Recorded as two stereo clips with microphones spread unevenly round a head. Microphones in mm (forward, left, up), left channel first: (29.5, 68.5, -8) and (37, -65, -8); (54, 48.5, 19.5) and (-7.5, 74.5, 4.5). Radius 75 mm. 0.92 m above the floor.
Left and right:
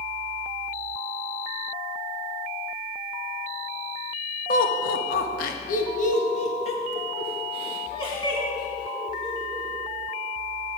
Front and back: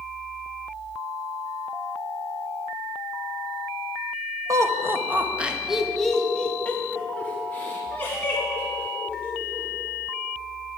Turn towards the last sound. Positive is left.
turn(degrees=30)